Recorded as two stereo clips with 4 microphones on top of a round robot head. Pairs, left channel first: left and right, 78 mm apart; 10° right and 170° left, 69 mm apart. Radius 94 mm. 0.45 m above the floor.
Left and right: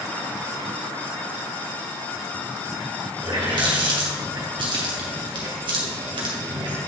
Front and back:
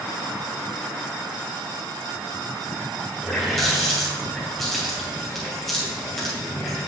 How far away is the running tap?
About 2.5 m.